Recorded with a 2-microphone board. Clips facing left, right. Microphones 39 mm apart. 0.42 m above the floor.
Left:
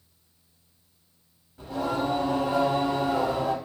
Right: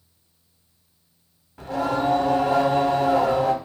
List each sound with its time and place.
1.6 s singing: 80° right, 0.5 m